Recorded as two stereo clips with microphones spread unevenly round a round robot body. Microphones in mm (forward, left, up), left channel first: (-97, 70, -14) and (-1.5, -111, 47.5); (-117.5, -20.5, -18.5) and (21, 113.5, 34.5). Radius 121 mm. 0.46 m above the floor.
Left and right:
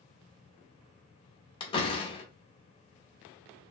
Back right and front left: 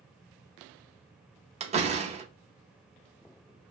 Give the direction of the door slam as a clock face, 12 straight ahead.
9 o'clock.